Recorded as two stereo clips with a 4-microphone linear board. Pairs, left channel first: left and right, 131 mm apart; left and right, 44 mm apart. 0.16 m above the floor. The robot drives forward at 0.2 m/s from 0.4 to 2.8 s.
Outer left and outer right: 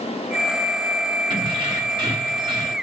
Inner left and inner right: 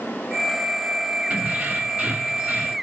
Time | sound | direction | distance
1.3 | keys jangling | 40° right (ahead or behind) | 0.9 m